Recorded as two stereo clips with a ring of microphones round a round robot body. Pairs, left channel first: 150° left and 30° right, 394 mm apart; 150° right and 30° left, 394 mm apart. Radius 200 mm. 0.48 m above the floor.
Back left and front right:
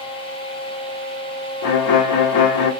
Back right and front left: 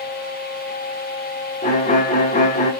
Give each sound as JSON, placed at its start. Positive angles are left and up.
{"t": 1.6, "sound": "a violin", "azimuth_deg": 145, "distance_m": 0.7}